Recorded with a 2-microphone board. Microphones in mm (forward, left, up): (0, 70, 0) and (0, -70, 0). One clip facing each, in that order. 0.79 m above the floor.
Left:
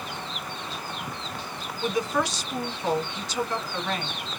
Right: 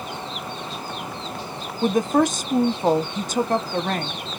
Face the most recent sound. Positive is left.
turn(degrees=-50)  # may be behind; listen again after turning